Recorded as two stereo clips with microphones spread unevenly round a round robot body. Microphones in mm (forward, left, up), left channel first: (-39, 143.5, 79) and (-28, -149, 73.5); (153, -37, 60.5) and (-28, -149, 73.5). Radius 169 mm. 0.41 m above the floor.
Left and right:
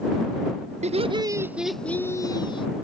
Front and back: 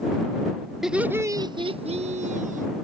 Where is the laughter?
55° right; by 2.7 s 165° left.